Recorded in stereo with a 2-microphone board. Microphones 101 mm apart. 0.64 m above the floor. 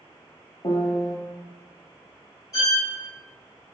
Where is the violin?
40° left (ahead or behind), 2 m.